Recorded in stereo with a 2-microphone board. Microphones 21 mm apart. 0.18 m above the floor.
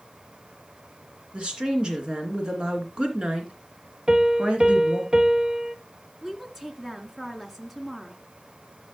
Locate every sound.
1.3 s a woman speaking: 55° right (ahead or behind), 2.5 m
4.1 s a piano: 35° right (ahead or behind), 1.1 m
6.2 s a woman speaking: 15° right (ahead or behind), 1.7 m